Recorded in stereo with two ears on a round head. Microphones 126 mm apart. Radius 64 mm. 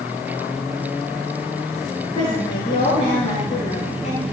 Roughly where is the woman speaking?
Left.